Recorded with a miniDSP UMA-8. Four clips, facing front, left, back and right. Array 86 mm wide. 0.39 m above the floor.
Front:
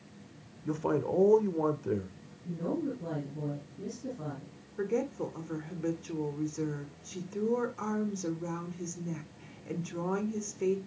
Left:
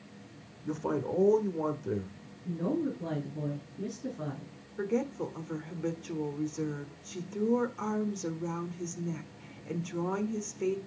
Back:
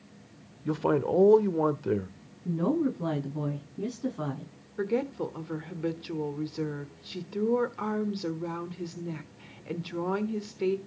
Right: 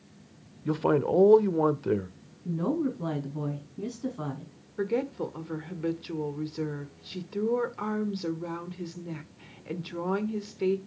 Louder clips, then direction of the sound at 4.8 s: Right 3 dB, back 3 dB; 140° right.